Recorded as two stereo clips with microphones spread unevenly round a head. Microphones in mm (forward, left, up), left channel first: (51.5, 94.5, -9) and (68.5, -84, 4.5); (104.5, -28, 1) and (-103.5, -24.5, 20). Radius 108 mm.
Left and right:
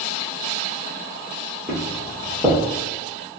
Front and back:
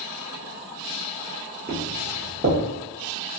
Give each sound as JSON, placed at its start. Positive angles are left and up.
{"t": 1.7, "sound": "footsteps", "azimuth_deg": -170, "distance_m": 1.3}